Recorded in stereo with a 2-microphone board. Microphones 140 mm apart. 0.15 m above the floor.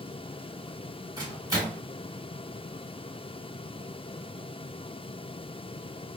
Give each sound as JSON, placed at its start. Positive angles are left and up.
{"t": 1.2, "sound": "a microwave", "side_deg": -25, "distance_m": 2.0}